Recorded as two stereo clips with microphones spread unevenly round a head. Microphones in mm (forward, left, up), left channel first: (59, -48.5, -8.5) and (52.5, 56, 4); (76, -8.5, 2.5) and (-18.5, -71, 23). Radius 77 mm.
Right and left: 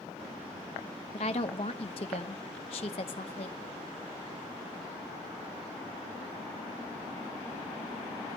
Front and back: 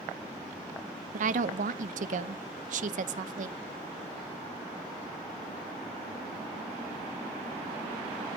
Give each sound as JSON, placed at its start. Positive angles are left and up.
{"t": 1.1, "sound": "a woman speaking", "azimuth_deg": -135, "distance_m": 0.6}